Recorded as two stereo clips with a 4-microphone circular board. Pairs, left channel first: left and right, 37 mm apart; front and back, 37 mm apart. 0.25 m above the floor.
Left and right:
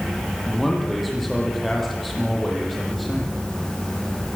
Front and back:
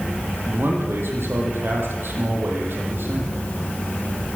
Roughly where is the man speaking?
Behind.